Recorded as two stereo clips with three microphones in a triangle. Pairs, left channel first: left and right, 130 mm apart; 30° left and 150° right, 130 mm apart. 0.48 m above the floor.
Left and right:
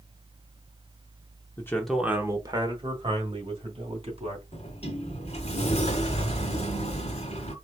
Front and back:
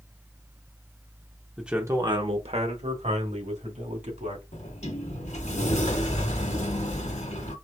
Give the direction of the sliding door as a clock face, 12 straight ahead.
10 o'clock.